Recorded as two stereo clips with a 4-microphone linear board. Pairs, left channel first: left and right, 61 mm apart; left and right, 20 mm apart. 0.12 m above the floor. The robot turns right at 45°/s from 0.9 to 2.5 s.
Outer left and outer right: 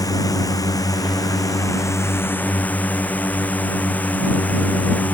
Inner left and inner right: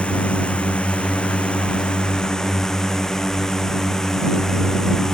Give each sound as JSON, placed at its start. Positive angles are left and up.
{"t": 0.0, "sound": "a drone", "azimuth_deg": 80}